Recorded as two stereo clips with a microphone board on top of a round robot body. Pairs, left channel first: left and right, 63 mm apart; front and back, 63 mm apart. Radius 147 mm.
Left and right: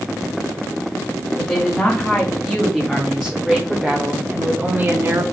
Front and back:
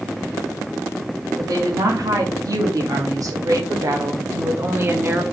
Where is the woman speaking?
160° left, 2.5 m; by 5.2 s 125° right, 1.3 m.